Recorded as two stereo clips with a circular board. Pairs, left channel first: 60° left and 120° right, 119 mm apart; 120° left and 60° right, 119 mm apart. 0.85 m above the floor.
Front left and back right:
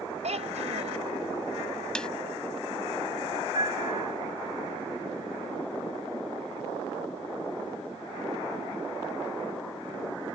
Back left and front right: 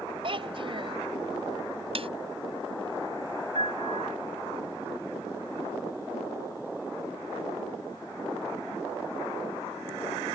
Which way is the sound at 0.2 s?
100° right.